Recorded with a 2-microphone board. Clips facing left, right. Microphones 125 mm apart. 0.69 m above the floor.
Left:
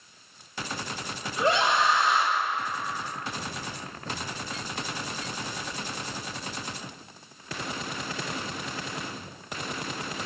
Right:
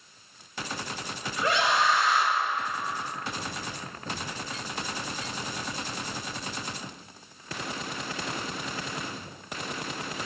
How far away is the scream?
About 1.6 m.